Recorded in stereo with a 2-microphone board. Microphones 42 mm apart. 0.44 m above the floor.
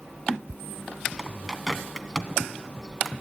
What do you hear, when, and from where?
1.2 s a bird: centre (ahead or behind), 0.9 m